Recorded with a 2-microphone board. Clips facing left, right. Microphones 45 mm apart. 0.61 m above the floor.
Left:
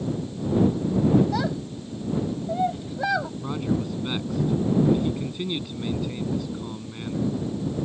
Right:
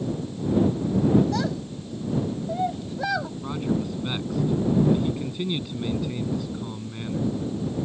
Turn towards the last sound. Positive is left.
turn(degrees=0)  # may be behind; listen again after turning